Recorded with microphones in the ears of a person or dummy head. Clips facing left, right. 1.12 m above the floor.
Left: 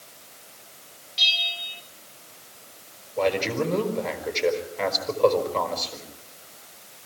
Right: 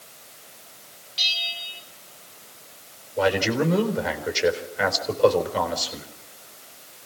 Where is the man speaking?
5° right (ahead or behind), 4 m.